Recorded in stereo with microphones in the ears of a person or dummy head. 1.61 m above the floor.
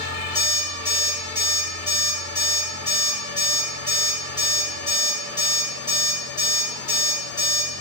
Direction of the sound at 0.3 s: 20° right (ahead or behind).